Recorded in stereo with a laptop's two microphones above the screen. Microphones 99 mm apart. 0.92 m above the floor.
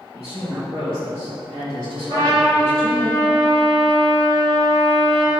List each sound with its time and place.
0.1 s a woman speaking: 80° right, 1.8 m; by 3.1 s 20° right (ahead or behind), 3 m
2.1 s a trumpet: 45° right (ahead or behind), 1.1 m